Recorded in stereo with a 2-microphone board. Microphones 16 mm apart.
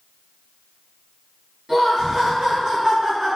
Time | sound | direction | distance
1.7 | laughter | 50° right (ahead or behind) | 1.7 m